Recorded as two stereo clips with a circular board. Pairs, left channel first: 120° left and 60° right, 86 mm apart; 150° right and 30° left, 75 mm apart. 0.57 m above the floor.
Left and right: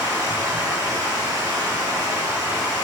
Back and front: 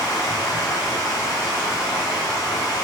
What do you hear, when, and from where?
0.0 s running water: 115° right, 1.8 m